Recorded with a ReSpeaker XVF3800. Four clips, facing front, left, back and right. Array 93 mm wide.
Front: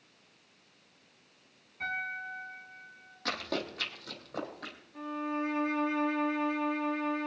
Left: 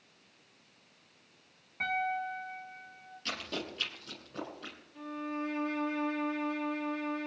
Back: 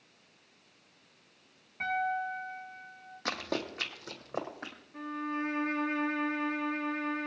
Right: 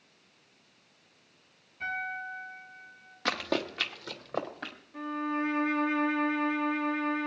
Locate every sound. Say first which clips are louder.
1.8 s a piano: left 2 dB, back 5 dB; 130° left, 6.5 m
3.2 s running footsteps: right 9 dB, even; 100° right, 2 m; by 4.8 s 115° right, 4.5 m
4.9 s a violin: right 6 dB, front 1 dB; 120° right, 1.7 m